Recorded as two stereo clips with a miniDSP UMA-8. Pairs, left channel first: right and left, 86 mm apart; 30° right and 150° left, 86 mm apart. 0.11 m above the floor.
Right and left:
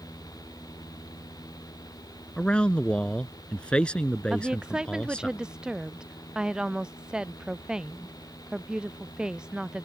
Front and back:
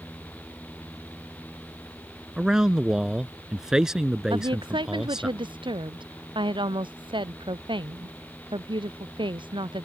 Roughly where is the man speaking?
Behind right.